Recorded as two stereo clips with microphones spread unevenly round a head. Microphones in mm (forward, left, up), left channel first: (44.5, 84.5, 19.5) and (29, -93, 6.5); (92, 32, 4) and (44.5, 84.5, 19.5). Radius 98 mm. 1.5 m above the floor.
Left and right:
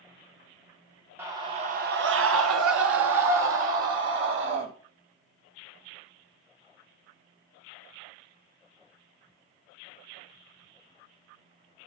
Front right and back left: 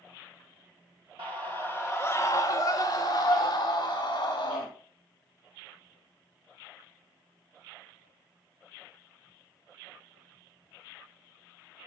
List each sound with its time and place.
1.2 s a scream: 175° right, 1.2 m; by 4.7 s 80° right, 3 m